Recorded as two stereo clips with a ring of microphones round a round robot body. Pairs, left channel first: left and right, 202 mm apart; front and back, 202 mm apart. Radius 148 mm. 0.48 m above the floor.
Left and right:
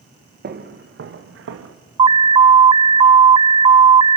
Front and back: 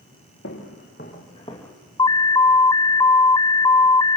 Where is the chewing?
I don't hear chewing.